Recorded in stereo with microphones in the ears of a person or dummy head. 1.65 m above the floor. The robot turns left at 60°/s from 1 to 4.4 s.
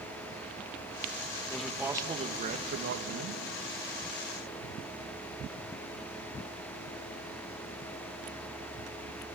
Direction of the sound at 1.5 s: 5° left.